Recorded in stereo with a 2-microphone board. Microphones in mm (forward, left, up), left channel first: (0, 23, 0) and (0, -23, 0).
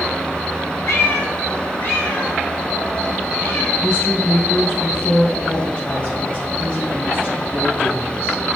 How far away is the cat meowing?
About 2.5 m.